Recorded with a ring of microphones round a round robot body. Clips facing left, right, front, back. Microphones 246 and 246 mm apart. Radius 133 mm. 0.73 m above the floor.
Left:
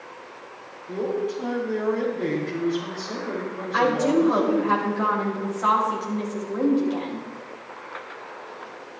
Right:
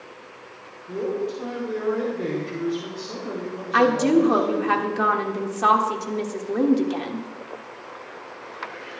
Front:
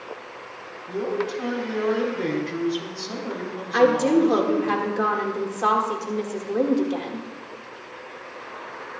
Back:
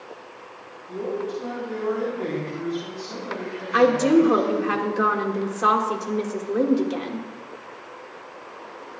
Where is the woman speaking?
100° right, 2 m.